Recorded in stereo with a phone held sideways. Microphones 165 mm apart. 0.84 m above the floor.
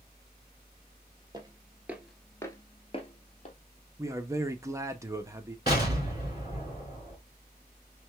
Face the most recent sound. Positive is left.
turn(degrees=-25)  # may be behind; listen again after turning